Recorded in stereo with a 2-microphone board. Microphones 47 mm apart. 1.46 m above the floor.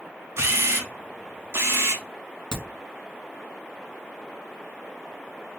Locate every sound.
0.4 s a camera shutter: 60° right (ahead or behind), 0.7 m
2.5 s a crack: 15° right (ahead or behind), 1.9 m